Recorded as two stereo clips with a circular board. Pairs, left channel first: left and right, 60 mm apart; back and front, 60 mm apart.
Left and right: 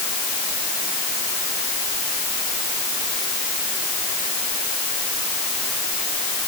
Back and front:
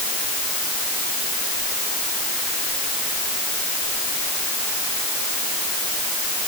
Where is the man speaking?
No man speaking in this recording.